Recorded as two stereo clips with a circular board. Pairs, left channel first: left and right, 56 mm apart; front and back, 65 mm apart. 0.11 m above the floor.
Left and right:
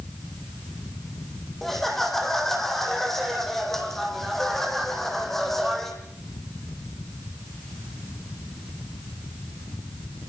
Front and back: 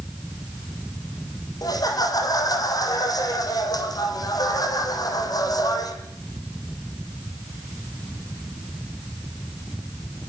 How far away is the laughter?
About 6 m.